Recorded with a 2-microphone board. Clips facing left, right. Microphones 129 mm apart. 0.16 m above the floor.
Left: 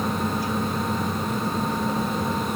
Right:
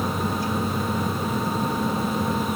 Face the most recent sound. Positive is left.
No sound to turn to.